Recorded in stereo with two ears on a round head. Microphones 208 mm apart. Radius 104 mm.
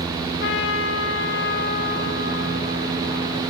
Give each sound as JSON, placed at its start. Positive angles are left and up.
{"t": 0.4, "sound": "a trumpet", "side_deg": 50, "distance_m": 2.5}